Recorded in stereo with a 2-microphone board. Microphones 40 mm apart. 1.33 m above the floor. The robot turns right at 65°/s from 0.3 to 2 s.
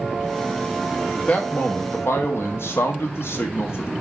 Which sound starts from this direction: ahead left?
A man speaking, at 1.1 s.